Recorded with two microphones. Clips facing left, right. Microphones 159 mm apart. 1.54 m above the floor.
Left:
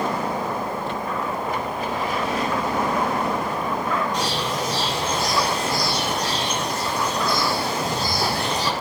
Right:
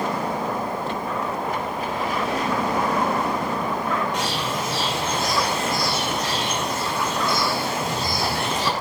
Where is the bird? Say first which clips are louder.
Left 1 dB; 35° left (ahead or behind), 6 m.